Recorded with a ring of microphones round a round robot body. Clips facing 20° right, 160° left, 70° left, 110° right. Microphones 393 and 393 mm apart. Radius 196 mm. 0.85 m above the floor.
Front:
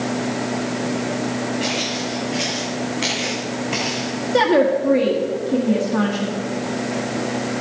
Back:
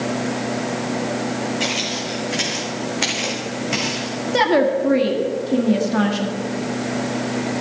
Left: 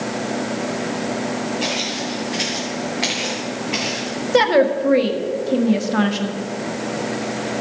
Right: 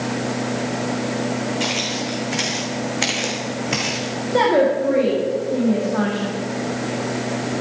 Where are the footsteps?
145° right, 3.5 m; by 4.2 s 120° right, 3 m.